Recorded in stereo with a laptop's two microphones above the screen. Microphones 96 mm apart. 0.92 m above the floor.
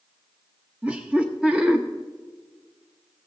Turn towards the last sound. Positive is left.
turn(degrees=-10)  # may be behind; listen again after turning